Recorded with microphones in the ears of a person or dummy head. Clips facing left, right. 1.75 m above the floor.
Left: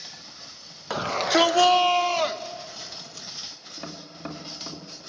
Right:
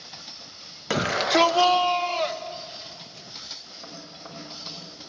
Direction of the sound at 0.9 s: 35° right (ahead or behind).